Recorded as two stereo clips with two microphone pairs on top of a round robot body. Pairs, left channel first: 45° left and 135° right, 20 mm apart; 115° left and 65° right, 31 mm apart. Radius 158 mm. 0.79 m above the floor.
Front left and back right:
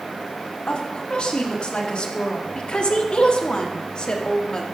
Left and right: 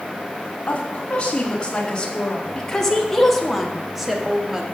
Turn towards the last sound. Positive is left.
turn(degrees=0)